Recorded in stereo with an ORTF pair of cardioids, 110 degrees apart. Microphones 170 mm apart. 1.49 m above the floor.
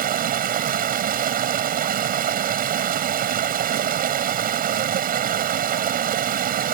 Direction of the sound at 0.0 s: 60° right.